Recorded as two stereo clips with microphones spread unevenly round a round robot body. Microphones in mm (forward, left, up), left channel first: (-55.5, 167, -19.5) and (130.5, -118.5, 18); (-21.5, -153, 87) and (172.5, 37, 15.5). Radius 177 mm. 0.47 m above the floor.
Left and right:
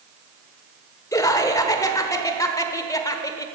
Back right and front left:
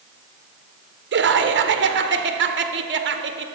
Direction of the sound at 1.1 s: 50° left.